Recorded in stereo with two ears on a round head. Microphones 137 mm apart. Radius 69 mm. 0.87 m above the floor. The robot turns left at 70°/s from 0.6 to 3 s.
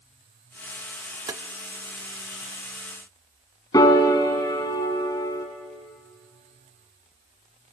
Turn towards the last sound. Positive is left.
turn(degrees=25)  # may be behind; listen again after turning